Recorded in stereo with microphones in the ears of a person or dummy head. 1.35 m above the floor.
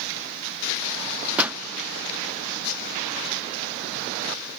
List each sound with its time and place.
1.4 s a pop: 10° right (ahead or behind), 0.5 m